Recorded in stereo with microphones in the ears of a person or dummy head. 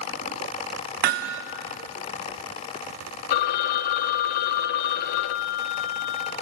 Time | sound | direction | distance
1.0 | hammering | 55° right (ahead or behind) | 0.9 m
3.3 | a phone ringing | 55° left (ahead or behind) | 0.7 m